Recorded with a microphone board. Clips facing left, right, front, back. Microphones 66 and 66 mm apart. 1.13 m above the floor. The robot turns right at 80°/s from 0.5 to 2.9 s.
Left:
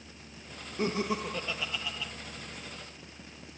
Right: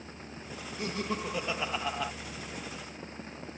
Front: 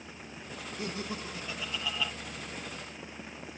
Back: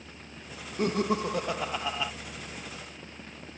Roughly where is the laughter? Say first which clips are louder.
Left 4 dB, back 12 dB; behind left.